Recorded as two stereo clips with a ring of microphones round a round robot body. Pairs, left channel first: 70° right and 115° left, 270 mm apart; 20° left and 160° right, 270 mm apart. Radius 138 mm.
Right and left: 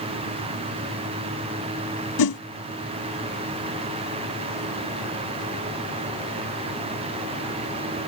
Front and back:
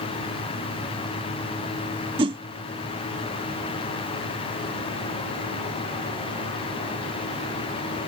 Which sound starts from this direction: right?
A whoosh, at 2.2 s.